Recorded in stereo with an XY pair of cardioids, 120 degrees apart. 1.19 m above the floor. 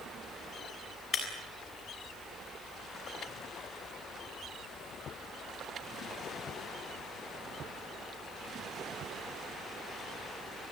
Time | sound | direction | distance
1.1 | breaking glass | 40° left | 7 m